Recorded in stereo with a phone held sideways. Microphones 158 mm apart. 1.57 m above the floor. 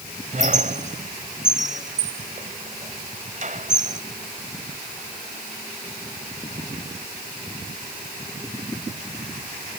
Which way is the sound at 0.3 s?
55° right (ahead or behind).